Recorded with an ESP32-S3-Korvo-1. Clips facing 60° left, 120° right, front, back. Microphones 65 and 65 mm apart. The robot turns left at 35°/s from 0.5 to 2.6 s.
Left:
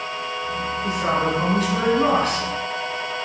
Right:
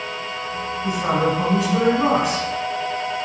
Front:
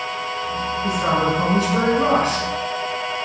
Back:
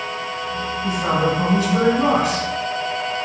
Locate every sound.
0.8 s a man speaking: 60° right, 1.2 m; by 2.5 s 115° right, 1.2 m